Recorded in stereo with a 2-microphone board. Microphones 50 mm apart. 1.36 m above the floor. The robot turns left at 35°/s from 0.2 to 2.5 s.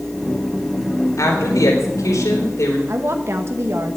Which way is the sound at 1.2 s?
110° left.